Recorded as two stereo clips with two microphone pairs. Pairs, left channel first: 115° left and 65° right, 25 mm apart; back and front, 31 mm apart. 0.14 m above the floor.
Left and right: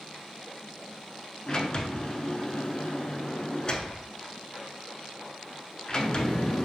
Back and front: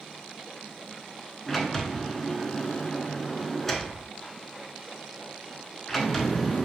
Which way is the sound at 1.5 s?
95° left.